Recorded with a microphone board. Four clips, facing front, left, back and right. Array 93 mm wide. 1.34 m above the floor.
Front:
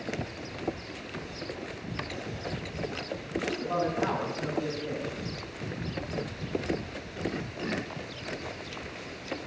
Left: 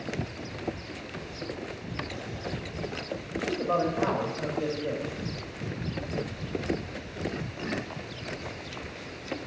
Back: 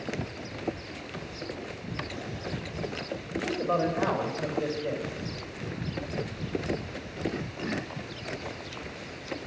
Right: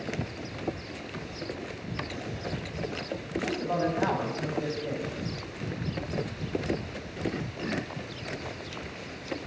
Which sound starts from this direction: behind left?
A man speaking, at 3.3 s.